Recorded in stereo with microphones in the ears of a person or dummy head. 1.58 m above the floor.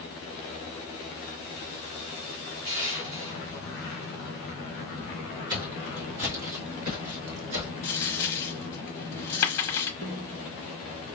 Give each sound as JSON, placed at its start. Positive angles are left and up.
{"t": 2.6, "sound": "crushing", "side_deg": -85, "distance_m": 2.5}
{"t": 5.5, "sound": "footsteps", "side_deg": -25, "distance_m": 1.9}
{"t": 7.8, "sound": "a dropped coin", "side_deg": 20, "distance_m": 1.0}
{"t": 10.0, "sound": "a snare drum", "side_deg": -60, "distance_m": 2.0}